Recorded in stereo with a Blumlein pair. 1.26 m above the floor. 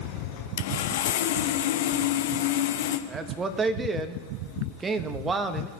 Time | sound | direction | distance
0.6 | sawing | 55° left | 0.8 m
3.1 | a man speaking | 15° right | 1.2 m